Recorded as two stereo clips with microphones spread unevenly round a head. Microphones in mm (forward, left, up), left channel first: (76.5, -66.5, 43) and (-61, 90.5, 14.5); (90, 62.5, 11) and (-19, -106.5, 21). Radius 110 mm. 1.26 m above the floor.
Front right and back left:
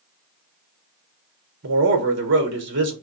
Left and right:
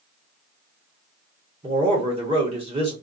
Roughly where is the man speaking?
Behind.